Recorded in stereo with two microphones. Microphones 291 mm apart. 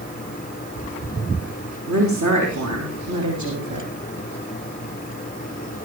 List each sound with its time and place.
1.9 s a woman speaking: 70° right (ahead or behind), 5 m; by 3.9 s 80° right, 5 m